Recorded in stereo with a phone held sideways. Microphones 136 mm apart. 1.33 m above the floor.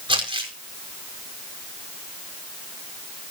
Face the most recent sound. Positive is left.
turn(degrees=-40)  # may be behind; listen again after turning